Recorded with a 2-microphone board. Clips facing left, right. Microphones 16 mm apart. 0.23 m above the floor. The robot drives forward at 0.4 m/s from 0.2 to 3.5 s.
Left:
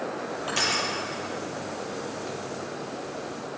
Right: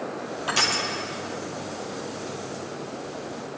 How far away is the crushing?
About 3 m.